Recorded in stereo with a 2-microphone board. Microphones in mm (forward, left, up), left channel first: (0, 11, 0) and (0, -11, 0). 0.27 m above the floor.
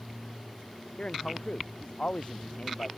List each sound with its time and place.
1.0 s a man speaking: 55° left (ahead or behind)